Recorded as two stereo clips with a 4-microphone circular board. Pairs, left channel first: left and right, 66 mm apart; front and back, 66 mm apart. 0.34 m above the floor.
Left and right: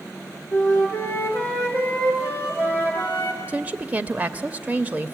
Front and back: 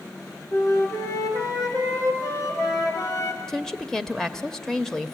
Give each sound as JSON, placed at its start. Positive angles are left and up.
{"t": 0.5, "sound": "a flute", "azimuth_deg": 30, "distance_m": 5.0}
{"t": 3.5, "sound": "a woman speaking", "azimuth_deg": -75, "distance_m": 0.9}